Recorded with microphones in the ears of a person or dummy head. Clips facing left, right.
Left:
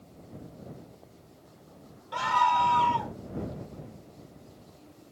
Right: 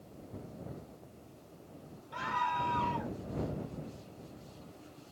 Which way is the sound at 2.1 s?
70° left (ahead or behind).